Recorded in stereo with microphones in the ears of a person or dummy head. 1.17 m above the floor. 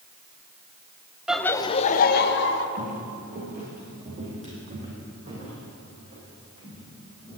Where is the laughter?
5° left (ahead or behind), 0.6 m; by 2.7 s 70° left (ahead or behind), 1.2 m.